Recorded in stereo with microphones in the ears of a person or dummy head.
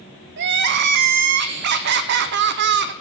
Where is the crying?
60° right (ahead or behind), 0.8 m.